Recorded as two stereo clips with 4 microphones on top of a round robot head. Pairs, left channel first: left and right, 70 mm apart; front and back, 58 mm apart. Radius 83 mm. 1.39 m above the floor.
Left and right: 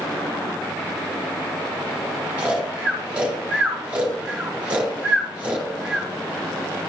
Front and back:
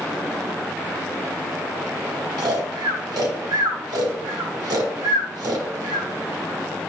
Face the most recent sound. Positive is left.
turn(degrees=-165)